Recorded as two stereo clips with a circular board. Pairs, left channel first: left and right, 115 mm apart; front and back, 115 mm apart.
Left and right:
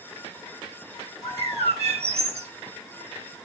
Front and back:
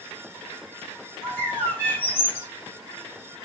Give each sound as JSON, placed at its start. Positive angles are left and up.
{"t": 1.2, "sound": "a bird", "azimuth_deg": -75, "distance_m": 8.5}